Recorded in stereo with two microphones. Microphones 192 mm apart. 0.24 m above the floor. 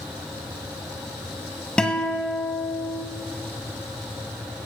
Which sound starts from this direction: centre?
A guitar, at 1.8 s.